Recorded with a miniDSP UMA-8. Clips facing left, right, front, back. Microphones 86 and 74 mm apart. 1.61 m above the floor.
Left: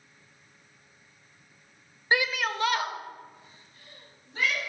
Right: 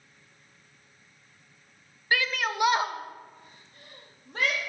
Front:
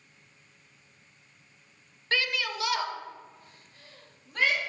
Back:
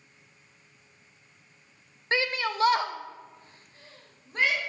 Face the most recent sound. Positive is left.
turn(degrees=-115)